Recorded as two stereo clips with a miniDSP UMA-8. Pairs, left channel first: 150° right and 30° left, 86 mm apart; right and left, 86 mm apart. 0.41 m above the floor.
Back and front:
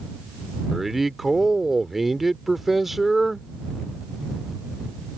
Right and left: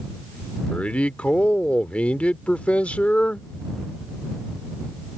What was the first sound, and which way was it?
A man speaking, 55° right.